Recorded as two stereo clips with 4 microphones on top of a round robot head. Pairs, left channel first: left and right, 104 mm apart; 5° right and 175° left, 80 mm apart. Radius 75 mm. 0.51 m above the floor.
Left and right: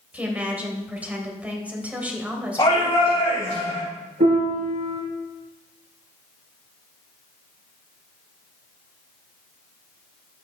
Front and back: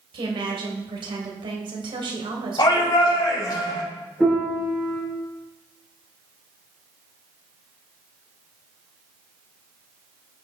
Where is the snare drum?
No snare drum in this recording.